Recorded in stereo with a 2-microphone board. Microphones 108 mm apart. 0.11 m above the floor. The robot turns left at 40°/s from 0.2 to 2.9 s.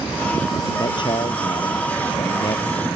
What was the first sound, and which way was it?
A man speaking, 130° left.